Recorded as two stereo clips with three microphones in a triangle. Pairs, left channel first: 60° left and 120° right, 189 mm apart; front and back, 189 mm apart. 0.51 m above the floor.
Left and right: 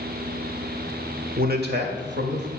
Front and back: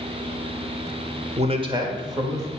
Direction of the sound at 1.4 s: 135° right.